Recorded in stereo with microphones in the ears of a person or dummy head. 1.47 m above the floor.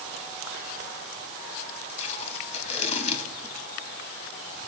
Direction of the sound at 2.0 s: 35° left (ahead or behind).